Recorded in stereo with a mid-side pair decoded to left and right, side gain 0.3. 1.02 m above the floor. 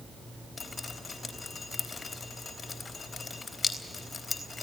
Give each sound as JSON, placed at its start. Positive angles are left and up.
{"t": 0.6, "sound": "dripping", "azimuth_deg": 40, "distance_m": 3.5}